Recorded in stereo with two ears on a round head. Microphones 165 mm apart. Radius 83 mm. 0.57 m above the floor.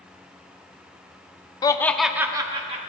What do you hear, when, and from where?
1.6 s laughter: 20° left (ahead or behind), 0.6 m; by 2.9 s 35° right (ahead or behind), 0.9 m